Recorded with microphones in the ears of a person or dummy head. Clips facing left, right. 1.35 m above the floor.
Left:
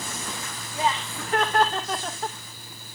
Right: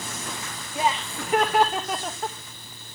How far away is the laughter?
About 2 m.